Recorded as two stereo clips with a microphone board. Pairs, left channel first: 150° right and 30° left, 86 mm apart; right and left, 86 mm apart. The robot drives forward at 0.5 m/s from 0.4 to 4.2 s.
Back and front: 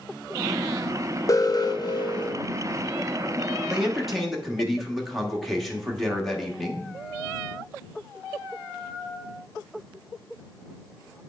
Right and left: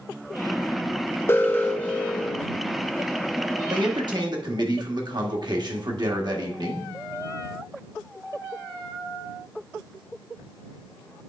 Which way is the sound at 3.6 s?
110° left.